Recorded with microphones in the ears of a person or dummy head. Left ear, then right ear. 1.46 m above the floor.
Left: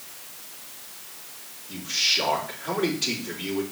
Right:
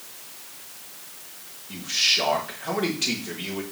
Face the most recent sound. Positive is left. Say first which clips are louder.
# right 2 dB
turn(degrees=-35)  # may be behind; listen again after turning